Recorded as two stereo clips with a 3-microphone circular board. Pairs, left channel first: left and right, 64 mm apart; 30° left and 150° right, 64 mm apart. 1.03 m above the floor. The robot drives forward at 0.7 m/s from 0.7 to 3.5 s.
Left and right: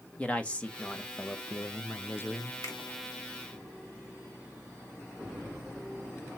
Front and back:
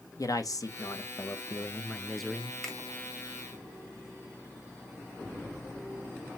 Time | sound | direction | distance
0.2 | a man speaking | 20° left | 1.0 m
2.6 | a finger snap | 115° left | 2 m